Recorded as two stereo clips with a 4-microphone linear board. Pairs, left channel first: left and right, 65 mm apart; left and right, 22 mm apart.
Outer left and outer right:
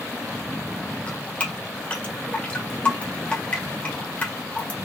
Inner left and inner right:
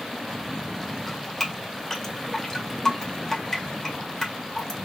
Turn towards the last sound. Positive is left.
turn(degrees=25)  # may be behind; listen again after turning